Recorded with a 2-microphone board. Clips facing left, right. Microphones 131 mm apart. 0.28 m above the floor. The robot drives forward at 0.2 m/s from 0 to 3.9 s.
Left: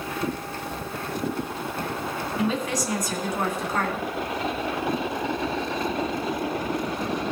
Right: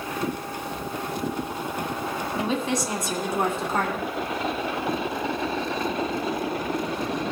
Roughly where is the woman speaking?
Right.